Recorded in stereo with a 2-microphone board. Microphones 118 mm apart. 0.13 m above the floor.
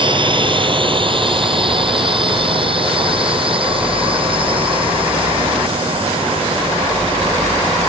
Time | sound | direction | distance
0.0 | a drone | 45° right (ahead or behind) | ?